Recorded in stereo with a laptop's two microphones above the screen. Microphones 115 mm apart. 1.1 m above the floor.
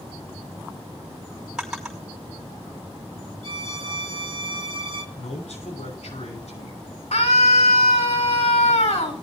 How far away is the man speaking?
About 5.5 m.